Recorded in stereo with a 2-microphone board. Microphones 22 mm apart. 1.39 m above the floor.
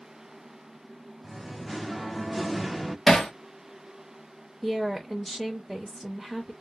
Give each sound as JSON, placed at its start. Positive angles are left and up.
{"t": 1.2, "sound": "singing", "side_deg": -5, "distance_m": 0.5}
{"t": 3.1, "sound": "hammering", "side_deg": 20, "distance_m": 0.9}
{"t": 4.6, "sound": "a woman speaking", "side_deg": -15, "distance_m": 0.7}